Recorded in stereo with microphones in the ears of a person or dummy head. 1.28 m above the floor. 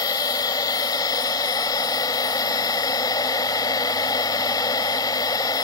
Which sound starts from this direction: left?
A machine running, at 0.0 s.